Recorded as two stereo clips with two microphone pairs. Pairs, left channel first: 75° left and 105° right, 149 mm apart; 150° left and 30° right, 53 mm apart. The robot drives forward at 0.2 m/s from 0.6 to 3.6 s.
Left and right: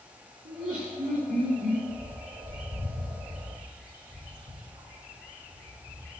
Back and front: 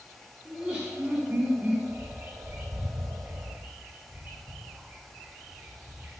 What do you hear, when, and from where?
0.5 s laughter: 100° right, 2.5 m; by 1.8 s 105° right, 2.5 m
1.9 s a bird: 75° right, 2 m; by 6.2 s 85° right, 2.0 m